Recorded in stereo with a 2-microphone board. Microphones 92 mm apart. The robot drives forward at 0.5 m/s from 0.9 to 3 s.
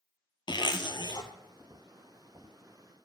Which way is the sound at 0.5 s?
55° left (ahead or behind).